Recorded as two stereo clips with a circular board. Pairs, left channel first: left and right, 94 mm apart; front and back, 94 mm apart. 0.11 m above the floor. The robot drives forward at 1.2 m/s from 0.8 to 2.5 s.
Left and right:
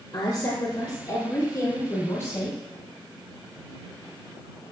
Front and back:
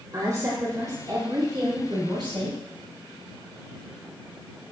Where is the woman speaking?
130° left, 2.5 m; by 2.6 s 155° left, 4 m.